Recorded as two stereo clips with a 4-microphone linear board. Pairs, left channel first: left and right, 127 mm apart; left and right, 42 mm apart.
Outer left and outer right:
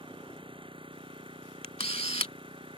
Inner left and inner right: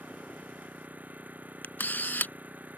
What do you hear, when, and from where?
0.0 s an engine running: 40° right (ahead or behind)
1.6 s a camera shutter: 50° left (ahead or behind)